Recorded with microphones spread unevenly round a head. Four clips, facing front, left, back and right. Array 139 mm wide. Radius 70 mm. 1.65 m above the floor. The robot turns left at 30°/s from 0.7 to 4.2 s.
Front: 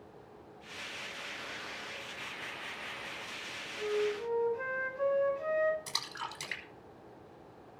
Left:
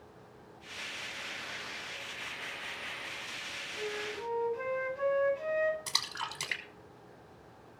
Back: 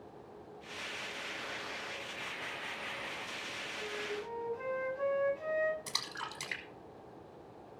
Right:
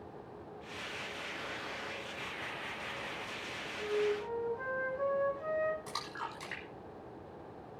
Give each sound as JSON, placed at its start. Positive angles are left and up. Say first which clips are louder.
{"t": 3.8, "sound": "a flute", "louder": "right 6 dB, front 9 dB", "azimuth_deg": 65, "distance_m": 8.0}
{"t": 5.9, "sound": "a splash", "louder": "left 1 dB, front 1 dB", "azimuth_deg": 65, "distance_m": 5.5}